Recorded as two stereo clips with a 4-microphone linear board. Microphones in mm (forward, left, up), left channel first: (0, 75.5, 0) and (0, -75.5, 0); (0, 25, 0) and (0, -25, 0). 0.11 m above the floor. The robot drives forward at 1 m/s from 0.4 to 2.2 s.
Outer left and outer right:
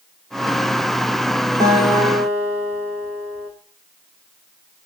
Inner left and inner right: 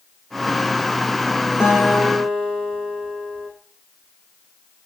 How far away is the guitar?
About 3.5 m.